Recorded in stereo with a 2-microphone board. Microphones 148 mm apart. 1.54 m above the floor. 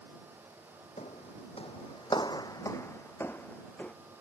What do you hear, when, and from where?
1.0 s footsteps: 50° left (ahead or behind); by 3.9 s 10° left (ahead or behind)